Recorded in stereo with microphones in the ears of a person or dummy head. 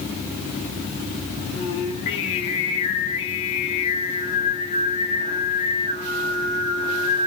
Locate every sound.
1.5 s singing: 30° left (ahead or behind), 1.0 m